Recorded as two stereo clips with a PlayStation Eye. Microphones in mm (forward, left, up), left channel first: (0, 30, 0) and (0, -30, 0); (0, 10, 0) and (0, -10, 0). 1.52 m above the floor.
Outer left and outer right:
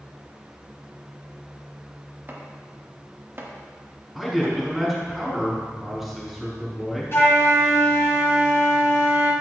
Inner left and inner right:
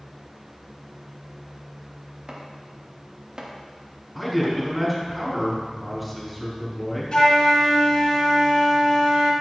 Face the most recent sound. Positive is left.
turn(degrees=45)  # may be behind; listen again after turning